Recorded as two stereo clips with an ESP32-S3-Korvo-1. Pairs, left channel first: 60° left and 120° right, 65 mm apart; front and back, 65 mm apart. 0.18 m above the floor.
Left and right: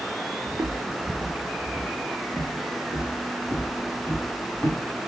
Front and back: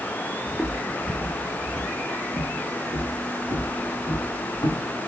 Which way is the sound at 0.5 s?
95° right.